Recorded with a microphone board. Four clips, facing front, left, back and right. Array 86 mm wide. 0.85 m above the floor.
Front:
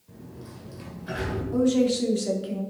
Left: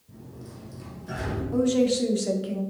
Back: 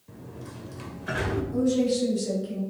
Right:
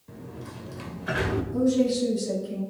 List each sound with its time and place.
0.1 s a sliding door: 110° right, 1.2 m
1.5 s a woman speaking: 55° left, 2 m